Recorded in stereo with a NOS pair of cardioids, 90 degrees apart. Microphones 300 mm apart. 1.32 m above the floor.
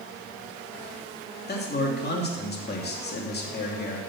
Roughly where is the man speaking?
Ahead left.